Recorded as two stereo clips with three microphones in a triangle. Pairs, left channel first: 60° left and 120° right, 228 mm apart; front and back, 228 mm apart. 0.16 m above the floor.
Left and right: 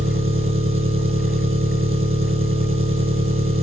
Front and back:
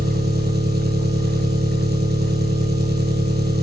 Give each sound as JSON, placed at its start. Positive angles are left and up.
{"t": 0.0, "sound": "an engine running", "azimuth_deg": -140, "distance_m": 1.3}